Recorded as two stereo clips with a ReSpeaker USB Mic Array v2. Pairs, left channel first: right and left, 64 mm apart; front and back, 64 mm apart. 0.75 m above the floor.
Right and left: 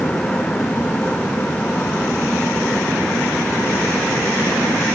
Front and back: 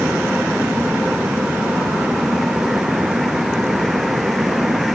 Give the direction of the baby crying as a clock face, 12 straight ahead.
I don't hear a baby crying.